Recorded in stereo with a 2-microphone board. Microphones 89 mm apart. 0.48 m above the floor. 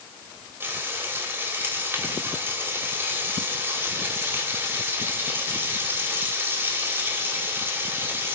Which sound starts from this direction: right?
Frying, at 0.6 s.